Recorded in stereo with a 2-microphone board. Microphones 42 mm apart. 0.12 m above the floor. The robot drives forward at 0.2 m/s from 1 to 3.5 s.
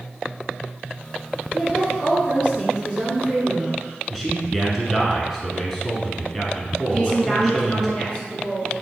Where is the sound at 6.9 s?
20° left (ahead or behind), 1.4 m.